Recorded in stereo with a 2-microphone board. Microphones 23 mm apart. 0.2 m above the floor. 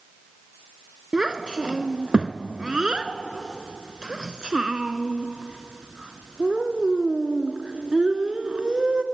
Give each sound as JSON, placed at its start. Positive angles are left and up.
{"t": 1.1, "sound": "a child speaking", "side_deg": -40, "distance_m": 1.4}